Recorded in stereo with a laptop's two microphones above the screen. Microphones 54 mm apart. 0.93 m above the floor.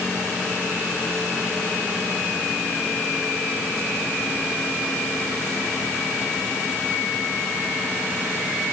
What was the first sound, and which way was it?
Only background noise.